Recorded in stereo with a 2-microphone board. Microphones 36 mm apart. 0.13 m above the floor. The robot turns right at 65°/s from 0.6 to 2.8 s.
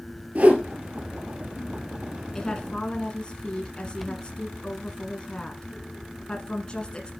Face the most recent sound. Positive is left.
turn(degrees=25)  # may be behind; listen again after turning